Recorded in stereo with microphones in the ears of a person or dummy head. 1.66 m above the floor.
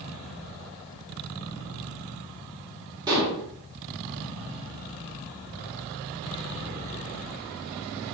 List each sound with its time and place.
3.1 s dishes clattering: 20° right (ahead or behind), 2.5 m